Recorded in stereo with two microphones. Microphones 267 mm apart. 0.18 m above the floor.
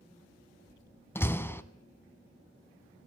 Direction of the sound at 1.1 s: 10° left (ahead or behind).